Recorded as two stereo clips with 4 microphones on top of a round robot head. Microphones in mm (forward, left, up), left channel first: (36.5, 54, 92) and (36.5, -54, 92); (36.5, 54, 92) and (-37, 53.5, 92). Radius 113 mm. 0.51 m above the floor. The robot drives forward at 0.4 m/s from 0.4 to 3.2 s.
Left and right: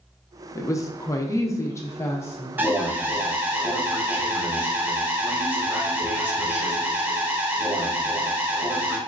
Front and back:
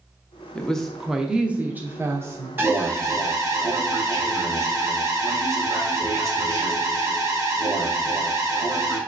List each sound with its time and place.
0.6 s a woman speaking: 65° left, 0.8 m; by 2.5 s 150° left, 1.0 m
2.6 s an alarm: 150° right, 0.9 m; by 9.0 s 160° right, 1.0 m